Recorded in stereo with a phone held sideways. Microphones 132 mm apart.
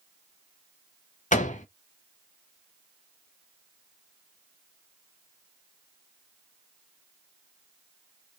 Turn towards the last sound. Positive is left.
turn(degrees=85)